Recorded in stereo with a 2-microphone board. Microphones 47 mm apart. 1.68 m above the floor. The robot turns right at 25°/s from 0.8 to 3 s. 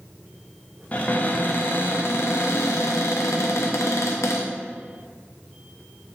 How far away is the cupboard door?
About 0.5 m.